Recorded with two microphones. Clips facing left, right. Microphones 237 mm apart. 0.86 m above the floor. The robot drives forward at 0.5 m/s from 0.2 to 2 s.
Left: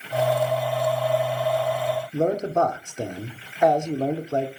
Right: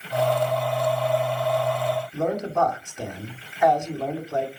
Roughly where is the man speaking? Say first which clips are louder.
Left 5 dB; left.